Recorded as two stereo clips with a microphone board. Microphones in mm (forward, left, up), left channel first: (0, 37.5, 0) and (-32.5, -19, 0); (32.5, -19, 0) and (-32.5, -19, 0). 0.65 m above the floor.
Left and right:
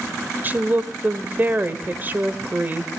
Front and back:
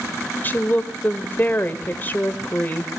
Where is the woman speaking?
60° right, 2.5 m.